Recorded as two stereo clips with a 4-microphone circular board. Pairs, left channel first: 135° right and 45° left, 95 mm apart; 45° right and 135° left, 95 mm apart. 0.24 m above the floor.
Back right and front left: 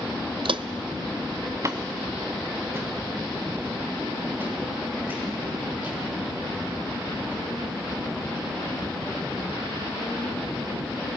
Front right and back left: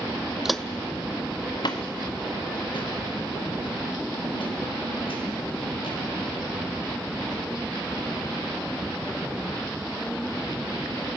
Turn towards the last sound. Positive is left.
turn(degrees=-25)